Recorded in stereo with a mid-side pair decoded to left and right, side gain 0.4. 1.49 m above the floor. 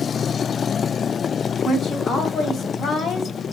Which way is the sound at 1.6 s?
65° left.